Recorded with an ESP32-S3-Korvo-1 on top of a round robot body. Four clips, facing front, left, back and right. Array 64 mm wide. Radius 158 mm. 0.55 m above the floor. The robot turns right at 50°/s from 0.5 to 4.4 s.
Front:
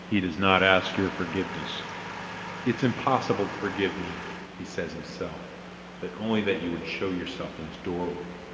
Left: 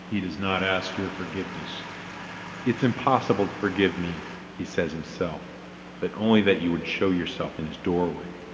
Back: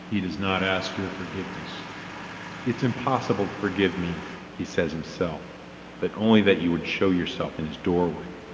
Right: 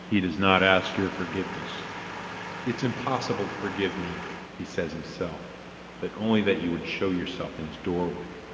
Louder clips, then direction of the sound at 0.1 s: Right 5 dB, front 3 dB; 50° right.